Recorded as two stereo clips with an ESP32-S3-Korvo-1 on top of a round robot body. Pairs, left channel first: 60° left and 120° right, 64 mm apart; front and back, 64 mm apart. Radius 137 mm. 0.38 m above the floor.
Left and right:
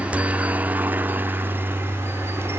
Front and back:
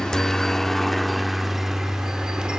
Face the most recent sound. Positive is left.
turn(degrees=-105)